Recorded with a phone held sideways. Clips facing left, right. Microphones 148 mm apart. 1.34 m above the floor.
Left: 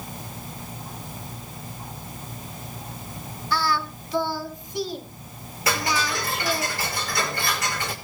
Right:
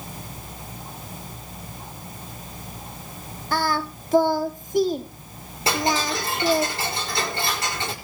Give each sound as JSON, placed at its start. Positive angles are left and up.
{"t": 3.5, "sound": "singing", "side_deg": -50, "distance_m": 1.6}
{"t": 5.7, "sound": "ticking", "side_deg": -30, "distance_m": 5.5}